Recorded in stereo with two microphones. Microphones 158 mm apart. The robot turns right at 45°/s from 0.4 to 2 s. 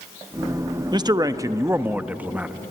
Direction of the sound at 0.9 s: 25° right (ahead or behind).